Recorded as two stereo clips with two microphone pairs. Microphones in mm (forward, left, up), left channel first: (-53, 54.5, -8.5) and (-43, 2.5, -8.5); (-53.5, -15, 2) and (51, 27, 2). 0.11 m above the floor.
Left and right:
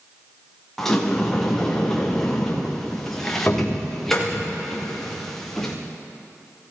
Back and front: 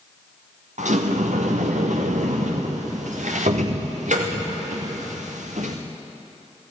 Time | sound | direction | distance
0.8 | a sliding door | 20° left | 3.5 m